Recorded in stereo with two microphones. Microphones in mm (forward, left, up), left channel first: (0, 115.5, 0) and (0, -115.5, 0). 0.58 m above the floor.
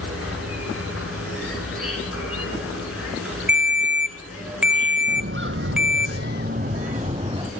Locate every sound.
0.0 s an insect: 80° left, 6.5 m
3.5 s a ringtone: 5° right (ahead or behind), 1.0 m
5.1 s footsteps: 50° right (ahead or behind), 1.3 m; by 7.5 s 20° right (ahead or behind), 2 m